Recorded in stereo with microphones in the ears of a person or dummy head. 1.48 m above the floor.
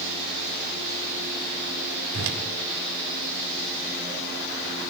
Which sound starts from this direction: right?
A whoosh, at 2.1 s.